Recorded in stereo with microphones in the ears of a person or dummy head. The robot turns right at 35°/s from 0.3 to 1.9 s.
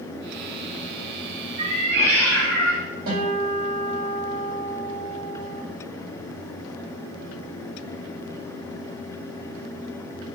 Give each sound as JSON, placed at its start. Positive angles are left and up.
{"t": 1.6, "sound": "a cat meowing", "side_deg": -60, "distance_m": 1.6}
{"t": 3.1, "sound": "a guitar", "side_deg": -65, "distance_m": 2.0}